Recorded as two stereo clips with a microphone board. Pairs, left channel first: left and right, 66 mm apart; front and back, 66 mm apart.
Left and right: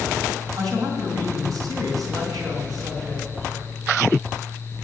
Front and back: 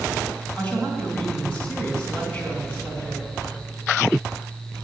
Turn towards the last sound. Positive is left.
turn(degrees=-75)